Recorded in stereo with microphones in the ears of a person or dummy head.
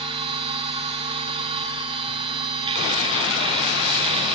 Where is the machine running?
30° right (ahead or behind), 1.1 m.